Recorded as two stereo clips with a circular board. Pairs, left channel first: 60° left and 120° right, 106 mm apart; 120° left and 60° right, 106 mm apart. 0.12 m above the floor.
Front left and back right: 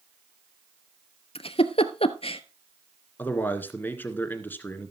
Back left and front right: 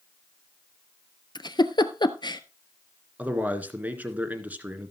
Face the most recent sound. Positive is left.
turn(degrees=5)